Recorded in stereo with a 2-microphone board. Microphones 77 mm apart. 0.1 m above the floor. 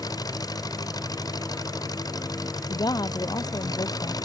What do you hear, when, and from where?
0.0 s an engine running: 55° left (ahead or behind)
2.7 s a woman speaking: 60° left (ahead or behind)